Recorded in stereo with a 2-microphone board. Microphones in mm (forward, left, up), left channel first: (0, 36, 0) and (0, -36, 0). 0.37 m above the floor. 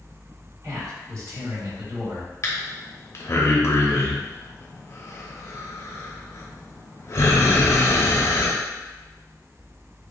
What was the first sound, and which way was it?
A man speaking, 55° right (ahead or behind).